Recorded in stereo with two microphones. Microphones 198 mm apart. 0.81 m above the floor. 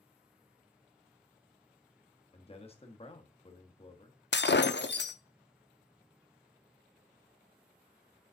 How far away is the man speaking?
About 1.1 m.